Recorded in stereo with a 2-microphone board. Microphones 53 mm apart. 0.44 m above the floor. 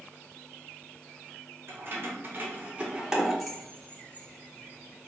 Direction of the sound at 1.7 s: 50° right (ahead or behind).